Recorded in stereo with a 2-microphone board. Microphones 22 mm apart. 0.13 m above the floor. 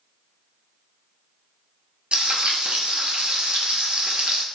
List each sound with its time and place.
2.1 s frying: 60° right (ahead or behind), 0.6 m